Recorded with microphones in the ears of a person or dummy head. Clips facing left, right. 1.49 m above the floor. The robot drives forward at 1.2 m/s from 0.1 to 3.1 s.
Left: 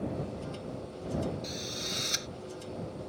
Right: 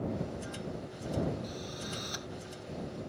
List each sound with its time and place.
1.4 s a drill: 25° left (ahead or behind); by 2.3 s 30° left (ahead or behind)